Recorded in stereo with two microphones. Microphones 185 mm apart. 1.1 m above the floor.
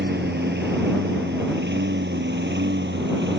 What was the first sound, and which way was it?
A lawn mower, 65° right (ahead or behind).